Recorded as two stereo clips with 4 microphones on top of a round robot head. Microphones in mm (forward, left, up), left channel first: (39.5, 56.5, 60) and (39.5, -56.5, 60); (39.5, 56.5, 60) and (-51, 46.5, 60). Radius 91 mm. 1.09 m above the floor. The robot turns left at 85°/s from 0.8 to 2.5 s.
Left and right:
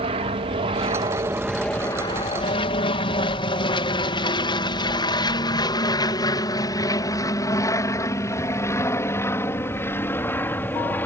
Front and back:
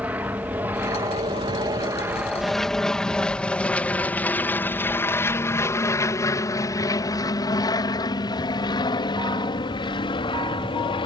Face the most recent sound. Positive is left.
turn(degrees=20)